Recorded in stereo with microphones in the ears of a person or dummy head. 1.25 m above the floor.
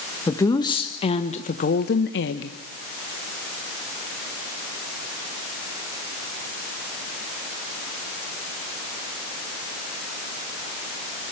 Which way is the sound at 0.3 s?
15° left (ahead or behind).